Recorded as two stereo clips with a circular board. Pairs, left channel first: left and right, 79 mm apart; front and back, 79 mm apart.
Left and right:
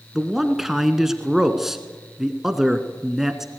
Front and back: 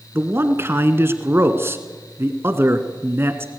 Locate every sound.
0.1 s a man speaking: 170° right, 1.2 m